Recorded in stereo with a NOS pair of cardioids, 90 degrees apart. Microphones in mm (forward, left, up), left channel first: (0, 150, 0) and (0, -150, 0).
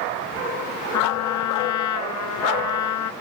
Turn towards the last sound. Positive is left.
turn(degrees=65)